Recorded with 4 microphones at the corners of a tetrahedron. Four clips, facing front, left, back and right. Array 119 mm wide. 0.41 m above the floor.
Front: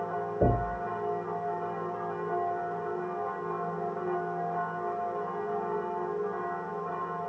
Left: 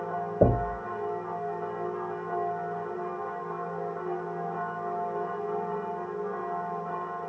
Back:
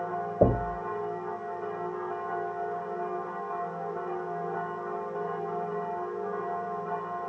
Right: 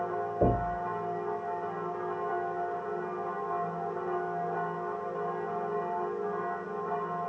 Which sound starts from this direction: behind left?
Knocking, at 0.4 s.